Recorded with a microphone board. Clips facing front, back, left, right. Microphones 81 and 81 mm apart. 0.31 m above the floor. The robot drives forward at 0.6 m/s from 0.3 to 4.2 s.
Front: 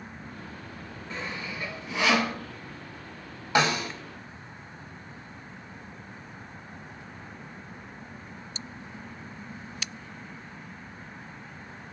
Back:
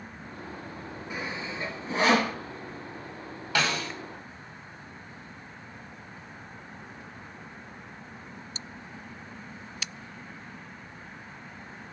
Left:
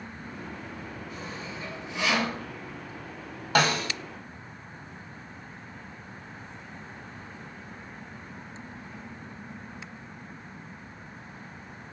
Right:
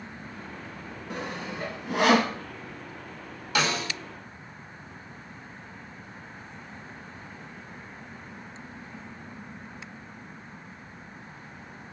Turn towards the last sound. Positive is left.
turn(degrees=80)